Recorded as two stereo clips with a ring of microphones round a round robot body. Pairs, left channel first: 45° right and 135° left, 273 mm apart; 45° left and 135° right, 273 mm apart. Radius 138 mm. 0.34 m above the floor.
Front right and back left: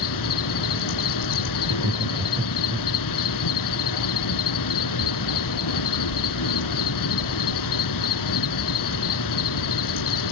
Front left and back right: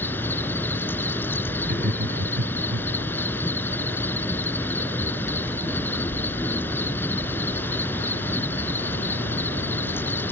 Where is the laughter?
160° right.